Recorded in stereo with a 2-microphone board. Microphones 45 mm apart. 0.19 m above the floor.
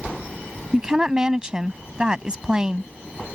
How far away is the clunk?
I don't hear a clunk.